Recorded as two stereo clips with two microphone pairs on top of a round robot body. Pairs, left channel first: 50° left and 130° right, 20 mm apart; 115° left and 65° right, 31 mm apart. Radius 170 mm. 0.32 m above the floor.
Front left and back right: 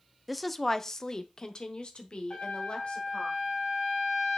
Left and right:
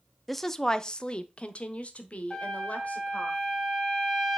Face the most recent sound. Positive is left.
turn(degrees=25)